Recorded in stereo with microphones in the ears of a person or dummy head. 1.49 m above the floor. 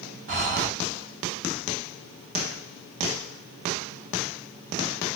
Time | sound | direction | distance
0.3 | breathing | 35° right (ahead or behind) | 1.0 m